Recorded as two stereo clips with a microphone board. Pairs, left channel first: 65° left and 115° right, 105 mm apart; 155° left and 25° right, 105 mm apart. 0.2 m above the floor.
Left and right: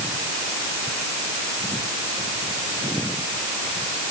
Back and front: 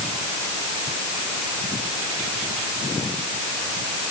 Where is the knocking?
No knocking in this recording.